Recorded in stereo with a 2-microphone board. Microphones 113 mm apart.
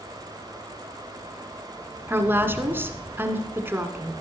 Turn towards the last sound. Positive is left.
turn(degrees=-20)  # may be behind; listen again after turning